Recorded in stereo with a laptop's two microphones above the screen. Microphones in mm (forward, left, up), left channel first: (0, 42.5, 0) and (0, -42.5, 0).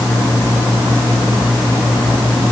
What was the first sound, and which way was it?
Only background noise.